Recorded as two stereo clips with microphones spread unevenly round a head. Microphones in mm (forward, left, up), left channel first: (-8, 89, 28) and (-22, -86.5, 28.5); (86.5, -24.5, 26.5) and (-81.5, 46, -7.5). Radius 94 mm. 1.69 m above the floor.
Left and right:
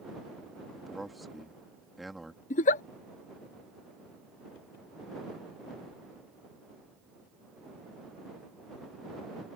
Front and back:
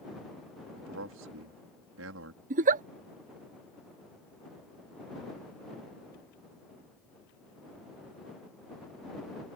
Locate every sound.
0.8 s a man speaking: 175° left
2.5 s a giggle: 115° left